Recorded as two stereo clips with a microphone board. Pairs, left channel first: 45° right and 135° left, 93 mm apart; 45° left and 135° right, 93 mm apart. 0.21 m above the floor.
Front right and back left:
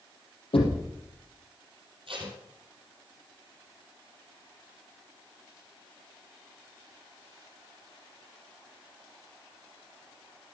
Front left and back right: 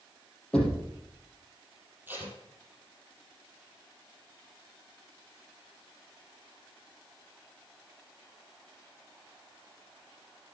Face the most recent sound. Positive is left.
turn(degrees=155)